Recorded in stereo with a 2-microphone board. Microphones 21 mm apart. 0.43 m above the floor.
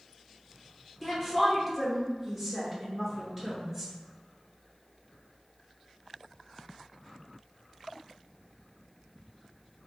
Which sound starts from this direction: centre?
A woman speaking, at 1.0 s.